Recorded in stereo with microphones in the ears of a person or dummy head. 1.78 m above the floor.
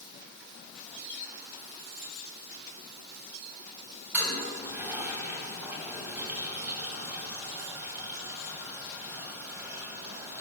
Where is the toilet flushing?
5° right (ahead or behind), 3.5 m.